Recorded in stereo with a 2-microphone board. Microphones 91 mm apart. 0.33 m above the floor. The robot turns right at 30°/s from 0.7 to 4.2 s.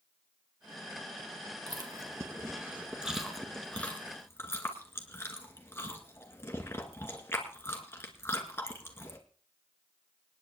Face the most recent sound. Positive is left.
turn(degrees=25)  # may be behind; listen again after turning